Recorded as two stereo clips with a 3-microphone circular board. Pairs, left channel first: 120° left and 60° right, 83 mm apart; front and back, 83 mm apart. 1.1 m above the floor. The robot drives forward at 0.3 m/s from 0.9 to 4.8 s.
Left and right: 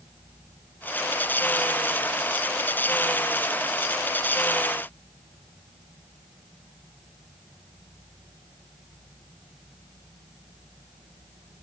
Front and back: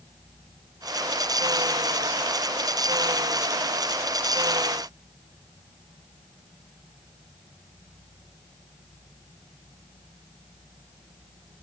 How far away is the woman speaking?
I don't hear a woman speaking.